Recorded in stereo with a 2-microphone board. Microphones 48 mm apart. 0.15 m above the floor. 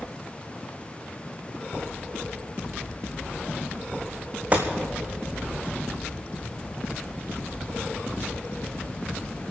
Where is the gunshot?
30° right (ahead or behind), 2 m.